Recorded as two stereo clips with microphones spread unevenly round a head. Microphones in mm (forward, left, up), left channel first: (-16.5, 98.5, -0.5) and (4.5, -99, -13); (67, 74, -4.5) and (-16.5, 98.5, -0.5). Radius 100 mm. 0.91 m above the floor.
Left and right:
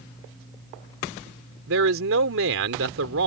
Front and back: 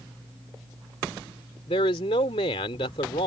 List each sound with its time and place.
1.7 s a man speaking: 60° right